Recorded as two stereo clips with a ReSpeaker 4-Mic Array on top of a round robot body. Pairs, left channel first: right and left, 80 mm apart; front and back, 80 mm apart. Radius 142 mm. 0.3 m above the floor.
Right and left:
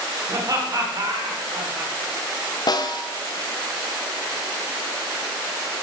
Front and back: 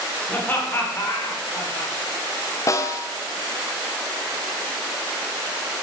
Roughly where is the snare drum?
Ahead right.